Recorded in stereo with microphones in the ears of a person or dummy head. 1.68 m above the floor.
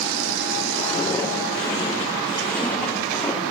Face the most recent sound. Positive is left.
turn(degrees=5)  # may be behind; listen again after turning